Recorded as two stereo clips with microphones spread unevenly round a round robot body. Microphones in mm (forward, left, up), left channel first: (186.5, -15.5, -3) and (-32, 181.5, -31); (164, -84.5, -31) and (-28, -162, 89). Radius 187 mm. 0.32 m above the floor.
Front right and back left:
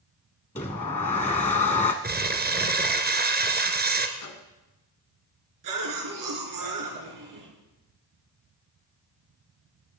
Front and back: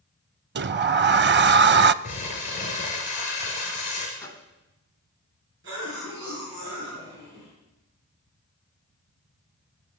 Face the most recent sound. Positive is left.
turn(degrees=140)